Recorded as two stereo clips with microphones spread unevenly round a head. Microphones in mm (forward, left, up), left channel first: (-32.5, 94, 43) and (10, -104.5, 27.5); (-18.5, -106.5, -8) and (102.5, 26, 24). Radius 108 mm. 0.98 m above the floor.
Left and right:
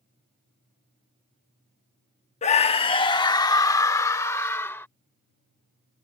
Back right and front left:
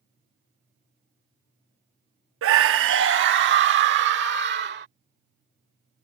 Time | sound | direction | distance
2.4 | a scream | 40° left | ?